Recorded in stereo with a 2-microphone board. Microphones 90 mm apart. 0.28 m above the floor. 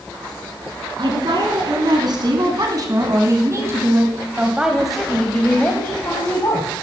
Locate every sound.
1.0 s a woman speaking: 60° right (ahead or behind), 4 m; by 6.7 s 40° left (ahead or behind), 2.5 m